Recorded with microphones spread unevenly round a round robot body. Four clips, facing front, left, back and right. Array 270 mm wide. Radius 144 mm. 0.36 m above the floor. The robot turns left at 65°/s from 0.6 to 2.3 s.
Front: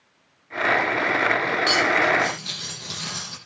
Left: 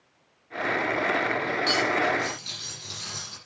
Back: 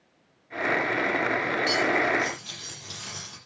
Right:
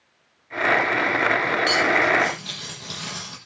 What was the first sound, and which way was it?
Cutlery clinking, 5° right.